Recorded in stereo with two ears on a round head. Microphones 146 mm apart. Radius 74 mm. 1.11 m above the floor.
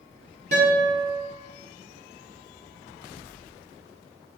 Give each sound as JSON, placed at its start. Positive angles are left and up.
{"t": 0.5, "sound": "a guitar", "side_deg": -50, "distance_m": 1.5}